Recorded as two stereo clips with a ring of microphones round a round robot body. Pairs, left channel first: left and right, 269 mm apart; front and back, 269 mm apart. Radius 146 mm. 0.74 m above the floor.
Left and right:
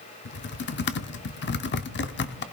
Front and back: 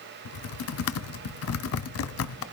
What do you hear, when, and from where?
0.2 s typing on a keyboard: 40° left, 0.7 m